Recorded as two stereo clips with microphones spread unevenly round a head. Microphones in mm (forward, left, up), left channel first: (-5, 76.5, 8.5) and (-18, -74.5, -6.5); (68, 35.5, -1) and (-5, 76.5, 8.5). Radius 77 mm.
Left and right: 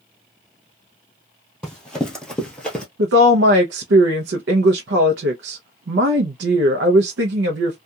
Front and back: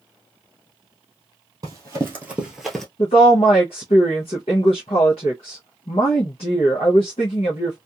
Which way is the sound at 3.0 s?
80° right.